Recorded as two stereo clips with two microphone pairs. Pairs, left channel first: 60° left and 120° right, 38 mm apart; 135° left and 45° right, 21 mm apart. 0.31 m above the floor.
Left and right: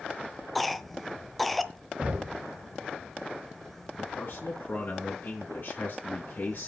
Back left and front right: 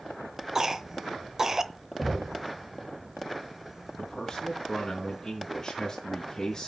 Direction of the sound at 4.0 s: 85° left.